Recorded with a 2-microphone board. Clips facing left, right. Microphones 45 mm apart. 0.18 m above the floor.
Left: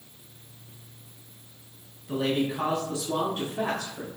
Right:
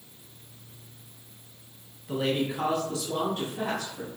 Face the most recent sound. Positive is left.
turn(degrees=50)  # may be behind; listen again after turning